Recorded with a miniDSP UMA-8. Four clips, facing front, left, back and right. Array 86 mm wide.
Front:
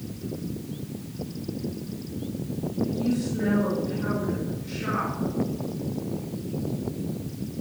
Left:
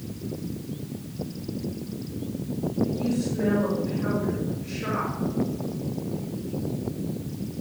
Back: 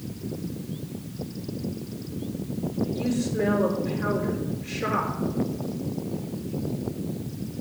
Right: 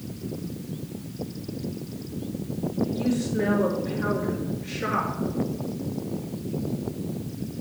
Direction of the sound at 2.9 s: 115° right.